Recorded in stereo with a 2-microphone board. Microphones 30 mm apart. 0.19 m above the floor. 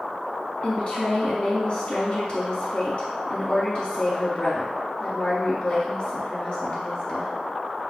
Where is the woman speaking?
40° left (ahead or behind), 1.4 m.